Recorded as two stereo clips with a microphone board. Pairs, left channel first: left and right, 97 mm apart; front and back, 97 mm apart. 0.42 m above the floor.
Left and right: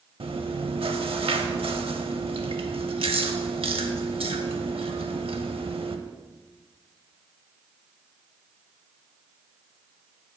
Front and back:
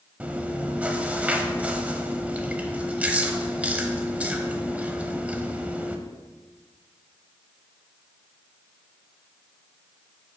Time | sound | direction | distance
0.2 | chewing | 105° right | 0.6 m